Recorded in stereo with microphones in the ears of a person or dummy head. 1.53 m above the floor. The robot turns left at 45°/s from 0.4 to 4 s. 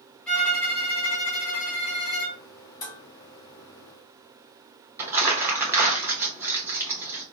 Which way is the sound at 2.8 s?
30° left (ahead or behind).